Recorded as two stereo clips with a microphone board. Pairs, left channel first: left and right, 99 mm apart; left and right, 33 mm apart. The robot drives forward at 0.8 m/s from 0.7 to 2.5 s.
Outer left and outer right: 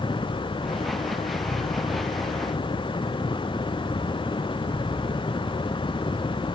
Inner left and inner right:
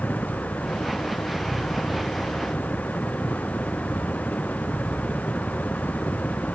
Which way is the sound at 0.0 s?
65° left (ahead or behind).